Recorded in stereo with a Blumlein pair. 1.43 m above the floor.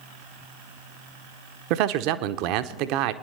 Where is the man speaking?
40° right, 0.8 m.